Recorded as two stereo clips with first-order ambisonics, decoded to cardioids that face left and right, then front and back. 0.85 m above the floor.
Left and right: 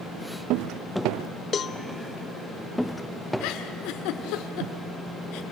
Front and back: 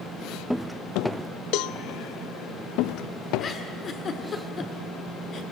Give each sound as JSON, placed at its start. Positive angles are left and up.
{"t": 1.5, "sound": "a cowbell", "azimuth_deg": 25, "distance_m": 0.6}
{"t": 3.4, "sound": "a giggle", "azimuth_deg": 65, "distance_m": 1.3}